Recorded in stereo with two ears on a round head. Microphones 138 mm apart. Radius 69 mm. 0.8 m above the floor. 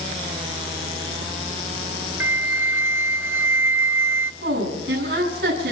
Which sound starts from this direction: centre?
A flute, at 2.2 s.